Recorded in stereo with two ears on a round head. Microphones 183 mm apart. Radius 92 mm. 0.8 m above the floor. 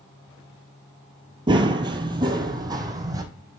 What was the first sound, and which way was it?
Running footsteps, 20° right (ahead or behind).